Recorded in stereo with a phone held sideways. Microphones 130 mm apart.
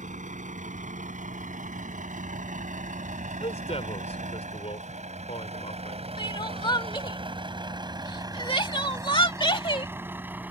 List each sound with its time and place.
0.0 s a vehicle: 75° right (ahead or behind); by 10.5 s 15° right (ahead or behind)
3.4 s a man speaking: 55° left (ahead or behind)
6.2 s crying: 40° left (ahead or behind)